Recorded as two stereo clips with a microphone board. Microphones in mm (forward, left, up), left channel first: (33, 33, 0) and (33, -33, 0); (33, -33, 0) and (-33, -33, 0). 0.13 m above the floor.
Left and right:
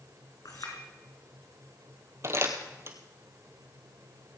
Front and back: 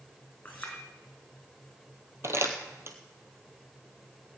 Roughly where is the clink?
Left.